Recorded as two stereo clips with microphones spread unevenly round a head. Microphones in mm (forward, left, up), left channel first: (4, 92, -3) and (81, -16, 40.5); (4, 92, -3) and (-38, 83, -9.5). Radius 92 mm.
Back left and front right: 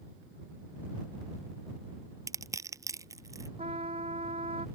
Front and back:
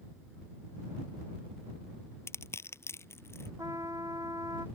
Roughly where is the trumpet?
Behind right.